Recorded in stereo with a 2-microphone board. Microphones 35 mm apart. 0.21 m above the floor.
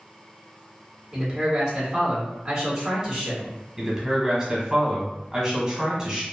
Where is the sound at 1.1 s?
20° right (ahead or behind), 1.9 m.